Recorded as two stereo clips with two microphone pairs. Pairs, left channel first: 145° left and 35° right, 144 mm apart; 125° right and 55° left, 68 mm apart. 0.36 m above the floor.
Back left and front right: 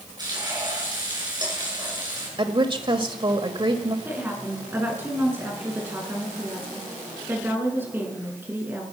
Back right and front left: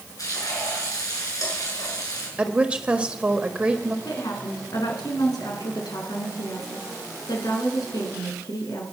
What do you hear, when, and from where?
0.2 s frying: 95° right, 6.5 m
2.4 s a woman speaking: 10° right, 1.5 m
4.0 s a woman speaking: 110° right, 4.5 m